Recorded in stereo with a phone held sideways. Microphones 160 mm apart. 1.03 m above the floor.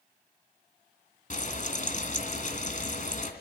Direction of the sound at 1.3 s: 50° left (ahead or behind).